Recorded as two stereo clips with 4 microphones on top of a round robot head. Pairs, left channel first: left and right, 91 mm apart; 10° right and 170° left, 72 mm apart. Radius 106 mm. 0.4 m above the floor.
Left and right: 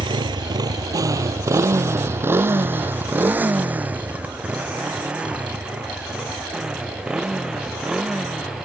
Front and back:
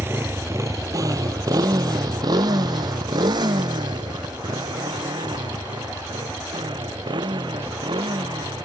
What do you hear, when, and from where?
0.0 s a motorcycle: 125° right; by 8.7 s 175° right